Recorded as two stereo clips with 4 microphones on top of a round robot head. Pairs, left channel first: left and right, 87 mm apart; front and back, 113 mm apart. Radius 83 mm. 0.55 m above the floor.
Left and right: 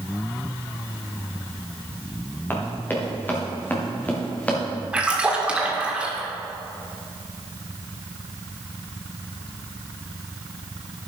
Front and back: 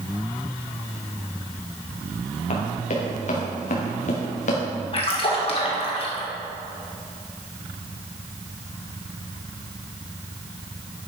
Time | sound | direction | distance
2.5 | running footsteps | 25° left | 4.5 m
4.9 | a splash | 15° right | 2 m